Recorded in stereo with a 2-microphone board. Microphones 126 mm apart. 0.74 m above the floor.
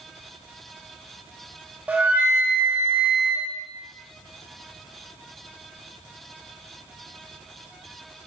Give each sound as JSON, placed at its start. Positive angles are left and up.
{"t": 1.9, "sound": "a flute", "side_deg": -10, "distance_m": 0.8}